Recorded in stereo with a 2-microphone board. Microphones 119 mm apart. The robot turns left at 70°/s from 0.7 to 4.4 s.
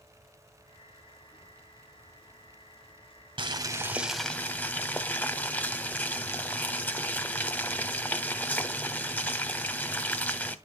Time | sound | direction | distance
3.4 | boiling | 125° right | 1.1 m